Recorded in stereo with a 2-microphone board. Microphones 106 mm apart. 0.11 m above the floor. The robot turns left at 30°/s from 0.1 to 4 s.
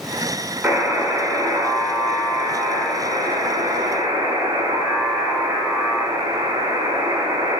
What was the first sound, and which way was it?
A buzzer, 5° right.